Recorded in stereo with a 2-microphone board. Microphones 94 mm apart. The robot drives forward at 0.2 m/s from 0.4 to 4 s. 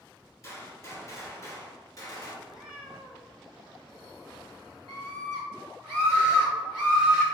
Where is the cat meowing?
10° right (ahead or behind), 1.2 m.